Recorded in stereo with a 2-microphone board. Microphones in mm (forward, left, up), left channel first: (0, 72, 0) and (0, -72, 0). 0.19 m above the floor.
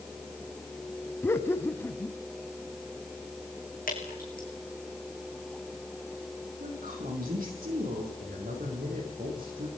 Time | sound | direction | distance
1.2 | laughter | 15° left (ahead or behind) | 1.0 m
3.9 | dripping | 80° left | 5.5 m
6.6 | a woman speaking | 80° right | 9 m
8.2 | a man speaking | 80° right | 9.5 m